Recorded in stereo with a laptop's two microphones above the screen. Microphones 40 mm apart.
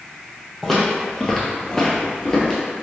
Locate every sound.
0.6 s footsteps: 5° left (ahead or behind), 1.6 m; by 2.6 s 15° left (ahead or behind), 1.2 m